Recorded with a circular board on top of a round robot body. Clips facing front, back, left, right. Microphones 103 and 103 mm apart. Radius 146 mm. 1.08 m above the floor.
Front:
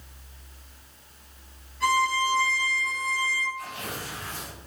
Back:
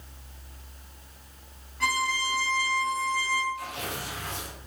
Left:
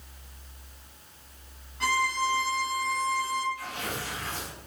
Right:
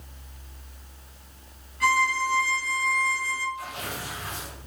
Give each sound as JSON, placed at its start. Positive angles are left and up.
{"t": 1.8, "sound": "a violin", "azimuth_deg": 155, "distance_m": 5.0}
{"t": 3.5, "sound": "tearing paper", "azimuth_deg": -160, "distance_m": 4.0}